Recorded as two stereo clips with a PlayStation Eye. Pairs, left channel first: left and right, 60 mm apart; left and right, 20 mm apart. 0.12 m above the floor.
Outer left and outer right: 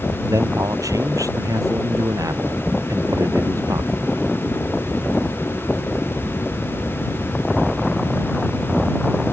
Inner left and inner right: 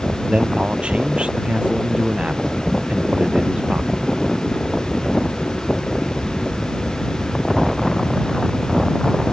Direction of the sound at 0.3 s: 75° right (ahead or behind).